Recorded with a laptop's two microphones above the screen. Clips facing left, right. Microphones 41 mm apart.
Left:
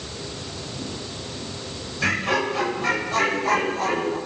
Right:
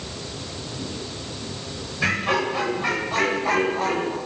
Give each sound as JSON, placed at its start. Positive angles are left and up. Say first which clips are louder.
{"t": 2.0, "sound": "laughter", "louder": "even", "side_deg": -10, "distance_m": 5.5}